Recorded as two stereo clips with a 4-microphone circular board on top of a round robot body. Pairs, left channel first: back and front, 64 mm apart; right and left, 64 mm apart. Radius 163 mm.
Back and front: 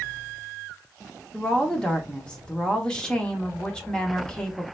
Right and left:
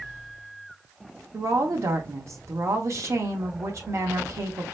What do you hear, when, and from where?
1.3 s a woman speaking: 105° left, 1.1 m